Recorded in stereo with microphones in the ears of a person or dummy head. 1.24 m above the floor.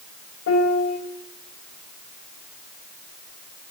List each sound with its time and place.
0.5 s a piano: 70° left (ahead or behind), 2 m